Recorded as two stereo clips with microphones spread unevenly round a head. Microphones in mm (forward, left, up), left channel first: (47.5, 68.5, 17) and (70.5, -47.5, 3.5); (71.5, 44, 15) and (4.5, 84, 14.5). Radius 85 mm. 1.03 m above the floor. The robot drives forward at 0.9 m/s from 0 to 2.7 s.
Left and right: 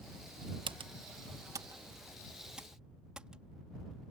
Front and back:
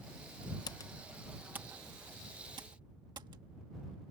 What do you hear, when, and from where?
0.7 s typing on a keyboard: 55° right; by 3.4 s 165° right